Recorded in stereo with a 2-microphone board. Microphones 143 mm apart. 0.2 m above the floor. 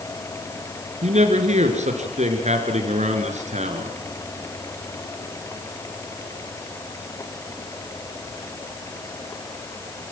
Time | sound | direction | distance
1.0 | a man speaking | 55° right (ahead or behind) | 3 m